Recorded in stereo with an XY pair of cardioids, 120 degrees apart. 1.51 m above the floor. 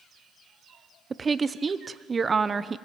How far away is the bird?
No bird in this recording.